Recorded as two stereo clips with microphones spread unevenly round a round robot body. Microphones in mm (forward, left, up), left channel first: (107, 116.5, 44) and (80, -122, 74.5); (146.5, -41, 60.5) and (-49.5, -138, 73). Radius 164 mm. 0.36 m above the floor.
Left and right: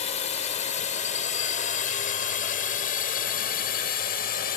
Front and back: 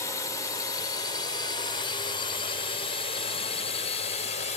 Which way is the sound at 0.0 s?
85° left.